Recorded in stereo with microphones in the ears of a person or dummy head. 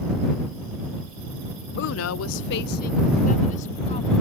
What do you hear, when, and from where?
1.8 s a woman speaking: 55° left (ahead or behind); by 4.1 s 35° left (ahead or behind)